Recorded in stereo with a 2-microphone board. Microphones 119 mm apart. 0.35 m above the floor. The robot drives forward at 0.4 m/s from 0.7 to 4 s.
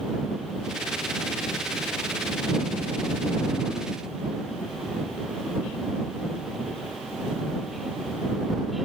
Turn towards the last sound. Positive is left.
No sound to turn to.